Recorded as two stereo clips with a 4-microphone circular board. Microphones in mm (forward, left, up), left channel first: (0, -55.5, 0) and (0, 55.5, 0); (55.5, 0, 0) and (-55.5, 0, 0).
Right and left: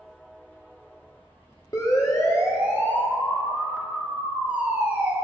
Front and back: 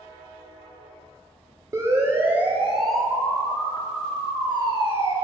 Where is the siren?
135° right, 3 m; by 5.1 s 20° left, 4 m.